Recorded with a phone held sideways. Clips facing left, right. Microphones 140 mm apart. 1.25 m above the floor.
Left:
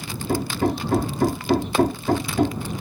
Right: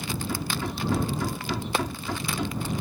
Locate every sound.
0.3 s hammering: 55° left (ahead or behind)